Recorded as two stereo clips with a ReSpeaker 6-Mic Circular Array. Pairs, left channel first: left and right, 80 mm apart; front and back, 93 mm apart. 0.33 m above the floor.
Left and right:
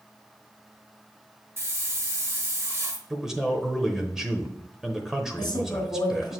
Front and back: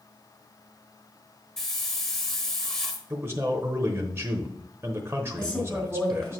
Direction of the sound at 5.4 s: 75° left.